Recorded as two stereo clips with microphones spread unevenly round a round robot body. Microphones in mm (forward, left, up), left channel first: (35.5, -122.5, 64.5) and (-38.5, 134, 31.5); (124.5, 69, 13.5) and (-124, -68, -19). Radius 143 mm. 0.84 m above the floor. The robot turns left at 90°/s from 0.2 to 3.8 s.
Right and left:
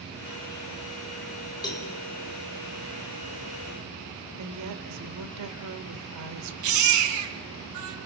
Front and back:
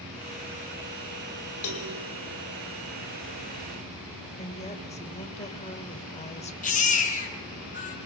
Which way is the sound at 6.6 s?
90° left.